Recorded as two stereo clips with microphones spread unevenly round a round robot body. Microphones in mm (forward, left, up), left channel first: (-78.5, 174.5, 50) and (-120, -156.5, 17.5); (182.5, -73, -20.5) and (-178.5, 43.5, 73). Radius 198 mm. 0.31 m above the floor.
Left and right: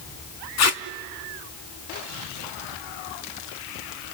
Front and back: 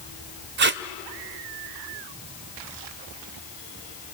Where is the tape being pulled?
95° left, 0.7 m.